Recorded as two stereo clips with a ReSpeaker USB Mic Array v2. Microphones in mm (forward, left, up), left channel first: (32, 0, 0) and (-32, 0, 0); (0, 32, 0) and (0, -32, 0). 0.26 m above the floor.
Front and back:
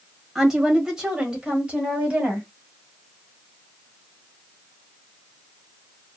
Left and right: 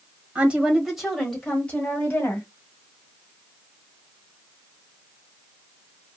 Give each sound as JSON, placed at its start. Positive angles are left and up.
{"t": 0.3, "sound": "a woman speaking", "azimuth_deg": -105, "distance_m": 1.2}